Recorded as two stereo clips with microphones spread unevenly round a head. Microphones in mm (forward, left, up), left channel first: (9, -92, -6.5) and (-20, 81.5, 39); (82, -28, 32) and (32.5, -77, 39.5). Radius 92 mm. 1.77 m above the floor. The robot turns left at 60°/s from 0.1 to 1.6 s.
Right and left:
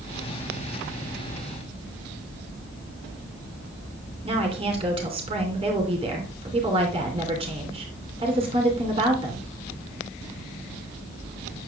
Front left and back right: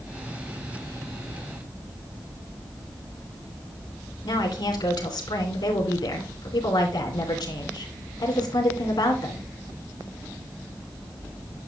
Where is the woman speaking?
40° left, 3 m.